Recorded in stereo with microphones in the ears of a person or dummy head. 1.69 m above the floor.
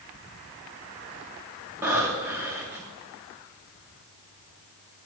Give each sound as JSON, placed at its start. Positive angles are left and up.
{"t": 1.8, "sound": "breathing", "side_deg": -10, "distance_m": 1.6}